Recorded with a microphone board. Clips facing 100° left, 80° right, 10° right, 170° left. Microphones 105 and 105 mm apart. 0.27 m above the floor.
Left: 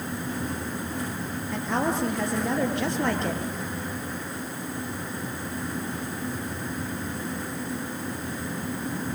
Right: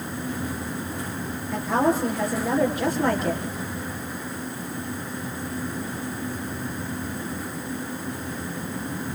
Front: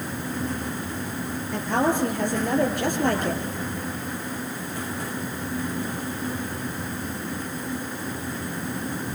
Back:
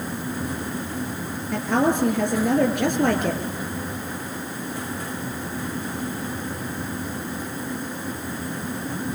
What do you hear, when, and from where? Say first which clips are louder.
1.5 s a woman speaking: right 5 dB, back 2 dB; 165° right, 5.5 m